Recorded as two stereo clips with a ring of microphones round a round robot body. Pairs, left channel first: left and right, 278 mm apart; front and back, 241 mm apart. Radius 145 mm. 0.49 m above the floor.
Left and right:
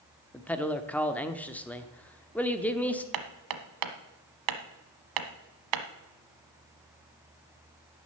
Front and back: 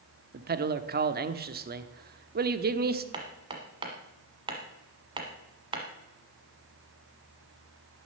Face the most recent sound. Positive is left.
turn(degrees=-105)